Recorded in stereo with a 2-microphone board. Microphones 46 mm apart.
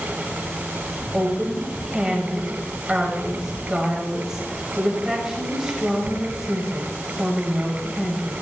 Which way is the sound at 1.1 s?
10° right (ahead or behind).